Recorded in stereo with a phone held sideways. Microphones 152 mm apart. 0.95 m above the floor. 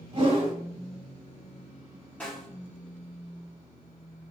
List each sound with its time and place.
0.1 s a whoosh: 35° right (ahead or behind), 0.9 m
2.2 s a snare drum: 10° left (ahead or behind), 1.6 m